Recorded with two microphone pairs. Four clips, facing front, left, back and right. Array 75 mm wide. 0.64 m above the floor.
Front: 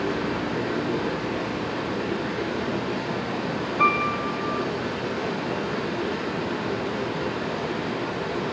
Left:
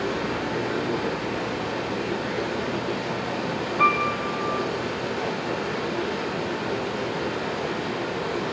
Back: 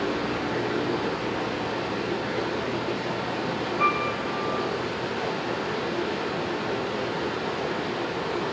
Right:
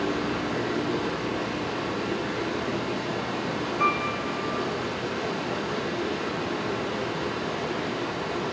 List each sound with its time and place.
0.0 s running water: 130° left, 2 m
3.8 s a piano: 50° left, 0.8 m